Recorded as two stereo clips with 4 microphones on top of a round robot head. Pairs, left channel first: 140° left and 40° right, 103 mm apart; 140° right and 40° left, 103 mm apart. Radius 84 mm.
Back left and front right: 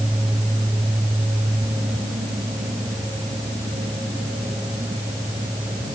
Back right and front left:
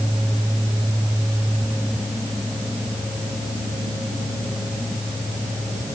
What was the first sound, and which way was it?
Only background noise.